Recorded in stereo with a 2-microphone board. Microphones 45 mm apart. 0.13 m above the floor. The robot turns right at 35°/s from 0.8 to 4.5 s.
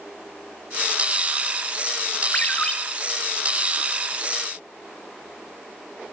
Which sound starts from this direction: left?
A ringtone, at 2.3 s.